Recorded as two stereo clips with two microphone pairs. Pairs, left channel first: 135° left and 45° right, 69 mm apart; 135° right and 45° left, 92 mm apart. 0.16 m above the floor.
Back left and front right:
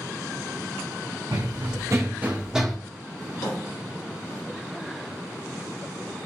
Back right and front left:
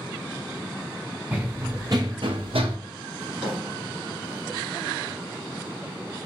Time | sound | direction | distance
1.3 | running footsteps | 25° right | 0.8 m
3.2 | a drawer | 120° left | 1.6 m